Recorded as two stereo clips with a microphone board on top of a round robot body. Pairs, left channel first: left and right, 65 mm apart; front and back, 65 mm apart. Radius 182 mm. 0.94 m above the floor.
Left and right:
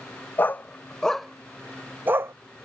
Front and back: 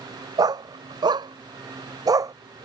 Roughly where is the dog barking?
Behind left.